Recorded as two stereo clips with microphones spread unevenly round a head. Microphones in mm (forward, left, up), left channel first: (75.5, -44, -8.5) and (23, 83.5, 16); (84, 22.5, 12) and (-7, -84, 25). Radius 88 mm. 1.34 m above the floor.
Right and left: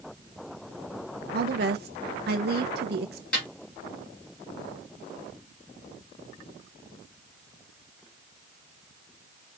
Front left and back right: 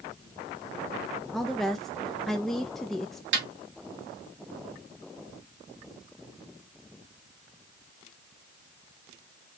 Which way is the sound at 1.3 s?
135° left.